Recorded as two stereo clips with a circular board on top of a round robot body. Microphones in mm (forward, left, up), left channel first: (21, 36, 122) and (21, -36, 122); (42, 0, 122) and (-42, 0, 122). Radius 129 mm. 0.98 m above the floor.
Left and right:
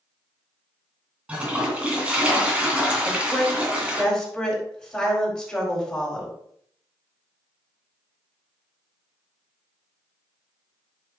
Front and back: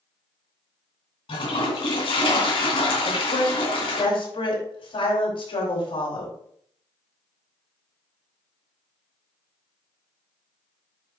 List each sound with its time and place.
1.3 s a toilet flushing: 15° right, 2.5 m
3.0 s a woman speaking: 5° left, 5 m